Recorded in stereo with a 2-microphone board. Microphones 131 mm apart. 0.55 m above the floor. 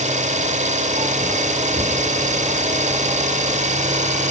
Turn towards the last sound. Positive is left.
turn(degrees=-65)  # may be behind; listen again after turning